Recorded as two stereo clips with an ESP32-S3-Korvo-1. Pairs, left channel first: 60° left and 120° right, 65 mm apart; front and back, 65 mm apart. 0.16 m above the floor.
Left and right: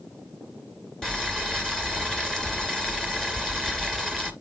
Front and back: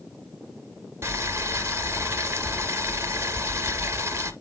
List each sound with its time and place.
1.0 s boiling: 135° left, 2.5 m